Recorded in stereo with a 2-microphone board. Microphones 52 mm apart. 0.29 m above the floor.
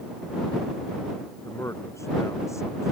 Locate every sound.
1.4 s a man speaking: 85° left